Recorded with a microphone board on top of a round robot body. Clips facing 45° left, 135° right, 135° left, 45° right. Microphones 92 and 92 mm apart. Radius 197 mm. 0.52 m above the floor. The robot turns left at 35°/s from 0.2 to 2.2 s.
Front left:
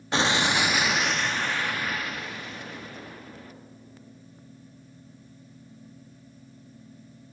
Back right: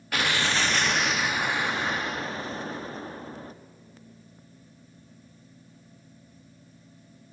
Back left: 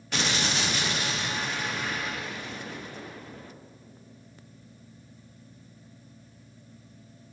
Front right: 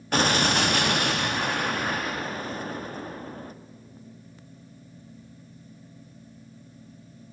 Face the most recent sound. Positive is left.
turn(degrees=-85)